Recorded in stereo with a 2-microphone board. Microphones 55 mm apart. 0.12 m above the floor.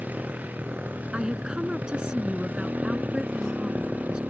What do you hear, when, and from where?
0.0 s a motorcycle: 25° right (ahead or behind)
1.1 s a woman speaking: 15° right (ahead or behind)